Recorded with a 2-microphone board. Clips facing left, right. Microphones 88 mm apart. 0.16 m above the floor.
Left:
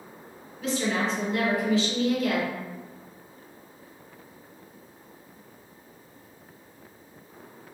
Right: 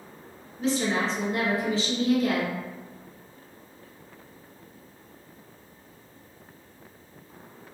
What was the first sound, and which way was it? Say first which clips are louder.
A woman speaking: right 1 dB; 35° right (ahead or behind).